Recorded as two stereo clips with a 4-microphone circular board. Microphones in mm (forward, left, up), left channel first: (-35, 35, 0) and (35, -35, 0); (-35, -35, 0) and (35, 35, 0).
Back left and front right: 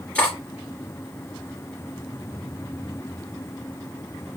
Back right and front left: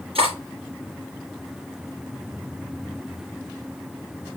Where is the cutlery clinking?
60° left, 3 m.